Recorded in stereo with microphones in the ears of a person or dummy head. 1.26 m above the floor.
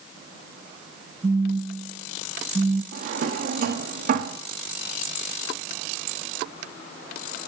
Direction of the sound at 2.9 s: 55° right (ahead or behind).